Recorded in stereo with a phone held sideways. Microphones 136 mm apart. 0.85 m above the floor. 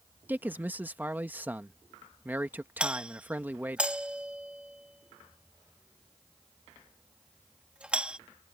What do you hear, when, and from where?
0.3 s a man speaking: 15° right (ahead or behind)
2.8 s a doorbell: 10° right (ahead or behind)